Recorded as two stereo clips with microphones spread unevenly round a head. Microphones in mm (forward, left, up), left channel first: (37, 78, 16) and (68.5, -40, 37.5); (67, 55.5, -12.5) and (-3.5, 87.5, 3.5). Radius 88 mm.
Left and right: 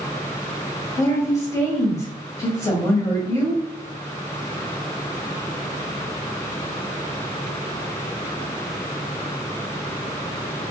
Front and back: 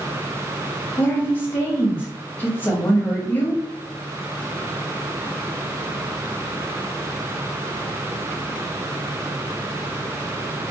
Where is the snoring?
No snoring in this recording.